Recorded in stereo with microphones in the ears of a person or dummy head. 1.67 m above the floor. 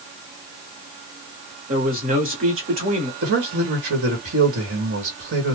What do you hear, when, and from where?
1.7 s a man speaking: 45° right (ahead or behind), 1.1 m
3.2 s a man speaking: 55° right (ahead or behind), 1.2 m